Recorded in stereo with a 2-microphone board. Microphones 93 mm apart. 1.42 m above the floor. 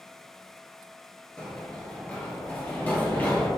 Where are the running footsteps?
10° left (ahead or behind), 1.5 m; by 3.5 s 20° left (ahead or behind), 2 m.